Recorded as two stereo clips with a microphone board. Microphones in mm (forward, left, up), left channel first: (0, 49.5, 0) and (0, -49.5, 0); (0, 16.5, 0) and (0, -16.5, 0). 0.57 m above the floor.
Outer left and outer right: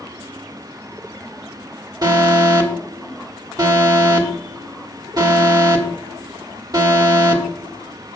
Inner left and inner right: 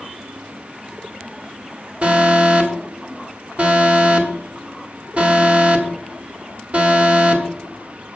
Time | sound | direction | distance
2.0 | an alarm | 40° right (ahead or behind) | 1.6 m